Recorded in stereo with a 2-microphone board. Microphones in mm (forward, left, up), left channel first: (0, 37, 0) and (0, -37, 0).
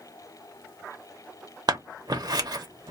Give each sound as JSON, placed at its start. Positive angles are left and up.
{"t": 1.7, "sound": "scissors", "side_deg": -65, "distance_m": 0.7}